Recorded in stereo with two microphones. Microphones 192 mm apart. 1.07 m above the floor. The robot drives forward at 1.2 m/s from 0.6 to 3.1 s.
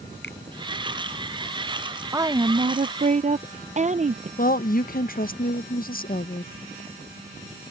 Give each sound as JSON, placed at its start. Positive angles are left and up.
{"t": 0.2, "sound": "a finger snap", "side_deg": 70}
{"t": 2.1, "sound": "a woman speaking", "side_deg": -15}
{"t": 4.4, "sound": "a woman speaking", "side_deg": 50}